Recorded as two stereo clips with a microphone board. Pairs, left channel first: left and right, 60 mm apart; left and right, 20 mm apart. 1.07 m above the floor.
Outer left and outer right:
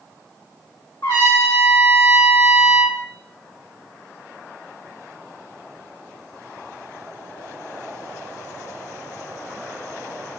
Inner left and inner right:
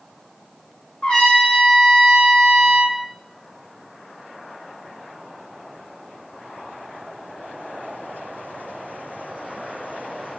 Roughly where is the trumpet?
Left.